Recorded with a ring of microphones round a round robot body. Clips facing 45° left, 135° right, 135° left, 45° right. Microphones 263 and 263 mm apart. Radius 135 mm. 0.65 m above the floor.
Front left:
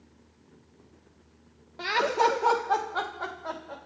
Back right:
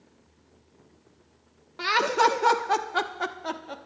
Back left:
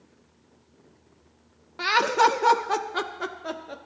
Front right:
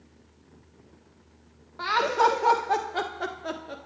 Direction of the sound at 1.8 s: 155° left.